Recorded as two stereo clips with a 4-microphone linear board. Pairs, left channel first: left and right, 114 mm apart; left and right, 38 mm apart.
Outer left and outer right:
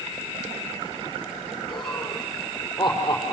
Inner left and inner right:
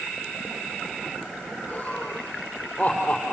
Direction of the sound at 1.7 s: 30° left (ahead or behind).